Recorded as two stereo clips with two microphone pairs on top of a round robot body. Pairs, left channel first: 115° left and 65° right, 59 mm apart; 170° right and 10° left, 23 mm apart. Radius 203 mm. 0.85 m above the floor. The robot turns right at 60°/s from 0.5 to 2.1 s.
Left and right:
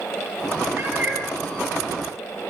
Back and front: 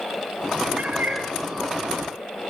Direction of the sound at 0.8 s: 10° right.